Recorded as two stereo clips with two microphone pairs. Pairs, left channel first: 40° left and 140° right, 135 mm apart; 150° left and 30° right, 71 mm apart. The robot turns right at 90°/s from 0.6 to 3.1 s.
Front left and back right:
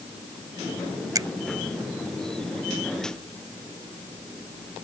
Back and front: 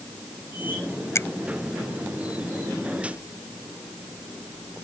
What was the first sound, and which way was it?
A finger snap, 170° left.